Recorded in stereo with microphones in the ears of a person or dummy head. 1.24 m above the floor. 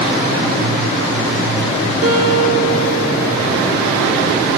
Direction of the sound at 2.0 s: 70° right (ahead or behind).